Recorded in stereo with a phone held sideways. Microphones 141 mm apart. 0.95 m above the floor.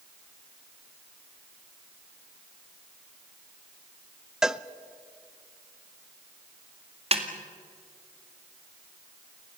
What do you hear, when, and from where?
4.4 s a cowbell: 5° right (ahead or behind), 0.6 m
7.1 s a snare drum: 45° right (ahead or behind), 2 m